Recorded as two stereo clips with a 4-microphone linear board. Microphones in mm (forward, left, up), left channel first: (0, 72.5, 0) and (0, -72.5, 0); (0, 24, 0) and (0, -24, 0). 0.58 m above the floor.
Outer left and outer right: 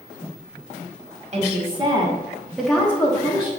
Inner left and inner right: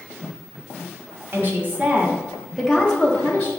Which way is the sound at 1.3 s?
45° right (ahead or behind).